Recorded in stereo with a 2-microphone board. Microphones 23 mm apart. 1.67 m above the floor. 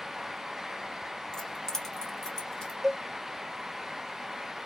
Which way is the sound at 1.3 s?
25° left (ahead or behind).